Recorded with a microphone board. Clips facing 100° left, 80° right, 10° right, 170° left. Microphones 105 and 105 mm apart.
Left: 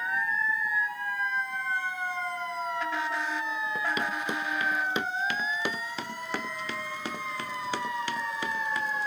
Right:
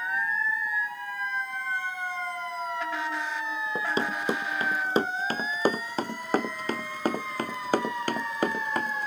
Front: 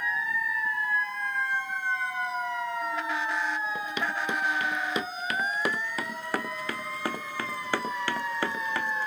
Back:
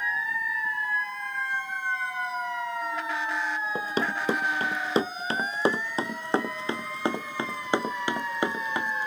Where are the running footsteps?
140° right; by 9.1 s 115° right.